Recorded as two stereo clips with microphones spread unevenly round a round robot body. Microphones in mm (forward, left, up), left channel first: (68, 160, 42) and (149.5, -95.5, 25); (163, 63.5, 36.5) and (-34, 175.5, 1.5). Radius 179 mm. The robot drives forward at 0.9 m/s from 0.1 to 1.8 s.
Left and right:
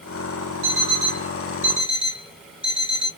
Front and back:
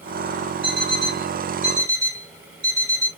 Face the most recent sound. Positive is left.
turn(degrees=-145)